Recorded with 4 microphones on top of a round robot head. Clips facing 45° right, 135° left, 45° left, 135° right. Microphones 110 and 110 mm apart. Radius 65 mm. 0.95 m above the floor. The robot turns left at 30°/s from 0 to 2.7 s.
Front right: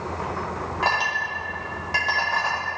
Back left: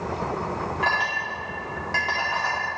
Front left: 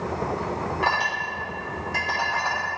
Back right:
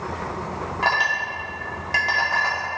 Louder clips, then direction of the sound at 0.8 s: Front right 3 dB, back right 3 dB; 90° right.